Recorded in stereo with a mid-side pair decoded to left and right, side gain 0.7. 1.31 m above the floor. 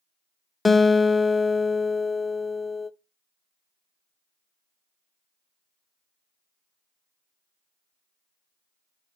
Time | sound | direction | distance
0.7 | a guitar | 15° left | 0.6 m